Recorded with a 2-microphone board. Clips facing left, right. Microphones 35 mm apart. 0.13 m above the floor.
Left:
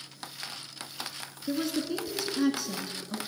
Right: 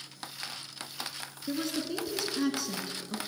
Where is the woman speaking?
Centre (ahead or behind), 1.2 m.